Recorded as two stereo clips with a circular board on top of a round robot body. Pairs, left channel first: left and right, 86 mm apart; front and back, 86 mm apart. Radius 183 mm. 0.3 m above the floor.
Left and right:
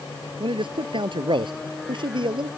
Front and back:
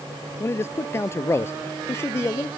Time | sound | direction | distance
0.4 | a man speaking | 65° right | ?